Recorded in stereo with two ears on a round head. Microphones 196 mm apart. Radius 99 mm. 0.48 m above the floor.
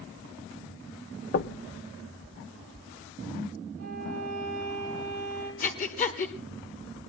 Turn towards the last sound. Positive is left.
turn(degrees=40)  # may be behind; listen again after turning